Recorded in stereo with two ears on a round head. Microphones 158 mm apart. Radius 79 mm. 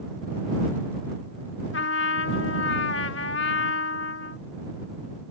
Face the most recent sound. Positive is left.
turn(degrees=75)  # may be behind; listen again after turning